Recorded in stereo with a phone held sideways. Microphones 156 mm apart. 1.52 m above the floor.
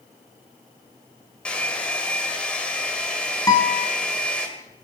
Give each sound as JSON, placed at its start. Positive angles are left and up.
{"t": 1.4, "sound": "a hair dryer", "side_deg": 5, "distance_m": 1.7}
{"t": 3.5, "sound": "a guitar", "side_deg": 25, "distance_m": 2.0}